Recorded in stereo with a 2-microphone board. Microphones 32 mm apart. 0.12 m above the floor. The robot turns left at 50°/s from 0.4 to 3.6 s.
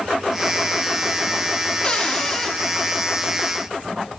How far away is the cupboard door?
About 0.8 m.